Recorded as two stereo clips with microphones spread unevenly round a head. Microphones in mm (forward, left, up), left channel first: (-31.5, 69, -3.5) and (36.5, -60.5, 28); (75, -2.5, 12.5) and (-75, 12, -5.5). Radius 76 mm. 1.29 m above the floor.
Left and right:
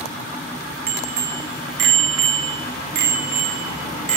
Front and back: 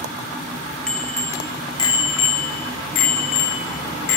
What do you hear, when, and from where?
0.9 s a bicycle bell: 90° right, 2.5 m; by 4.2 s 20° right, 3 m